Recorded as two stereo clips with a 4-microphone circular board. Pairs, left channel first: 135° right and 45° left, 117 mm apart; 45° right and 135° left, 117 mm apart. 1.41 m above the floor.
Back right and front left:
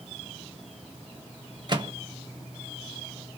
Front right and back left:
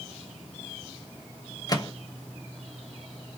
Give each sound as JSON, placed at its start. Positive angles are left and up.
{"t": 1.7, "sound": "a microwave", "azimuth_deg": 5, "distance_m": 0.8}